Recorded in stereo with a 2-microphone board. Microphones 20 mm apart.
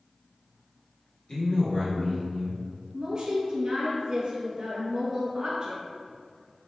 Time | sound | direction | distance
1.3 | a man speaking | 40° left (ahead or behind) | 1.3 m
2.9 | a woman speaking | 25° right (ahead or behind) | 1.2 m